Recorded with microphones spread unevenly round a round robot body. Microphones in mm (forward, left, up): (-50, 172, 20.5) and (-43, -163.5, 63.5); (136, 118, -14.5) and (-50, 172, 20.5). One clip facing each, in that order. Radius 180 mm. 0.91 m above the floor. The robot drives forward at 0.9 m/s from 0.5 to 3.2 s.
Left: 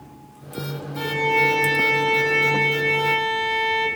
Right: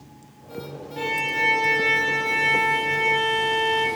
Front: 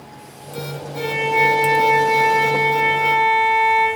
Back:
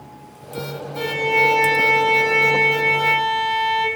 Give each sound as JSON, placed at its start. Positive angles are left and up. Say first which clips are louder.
{"t": 1.0, "sound": "a violin", "louder": "left 7 dB, even", "azimuth_deg": -130, "distance_m": 1.6}